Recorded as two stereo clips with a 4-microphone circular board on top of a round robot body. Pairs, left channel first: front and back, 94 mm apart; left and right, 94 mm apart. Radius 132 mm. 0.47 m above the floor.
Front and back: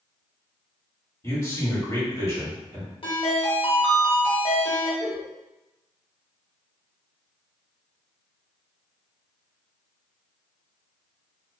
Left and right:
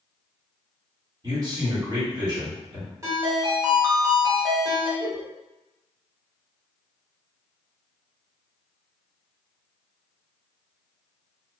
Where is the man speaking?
50° right, 1.6 m.